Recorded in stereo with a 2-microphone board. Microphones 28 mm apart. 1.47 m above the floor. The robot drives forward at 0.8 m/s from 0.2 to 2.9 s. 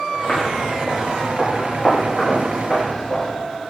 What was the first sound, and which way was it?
Footsteps, 40° left (ahead or behind).